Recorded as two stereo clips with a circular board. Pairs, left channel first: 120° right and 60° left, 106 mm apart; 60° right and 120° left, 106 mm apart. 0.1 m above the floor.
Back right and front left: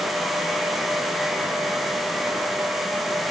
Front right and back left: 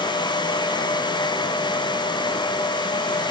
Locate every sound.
Only background noise.